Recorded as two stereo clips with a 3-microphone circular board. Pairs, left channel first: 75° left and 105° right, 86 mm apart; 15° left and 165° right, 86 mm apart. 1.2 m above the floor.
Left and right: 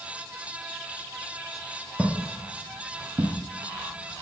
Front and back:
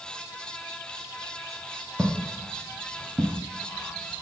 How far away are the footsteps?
About 1.3 m.